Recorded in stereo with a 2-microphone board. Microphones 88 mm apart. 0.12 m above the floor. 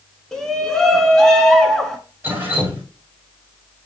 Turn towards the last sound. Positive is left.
turn(degrees=-25)  # may be behind; listen again after turning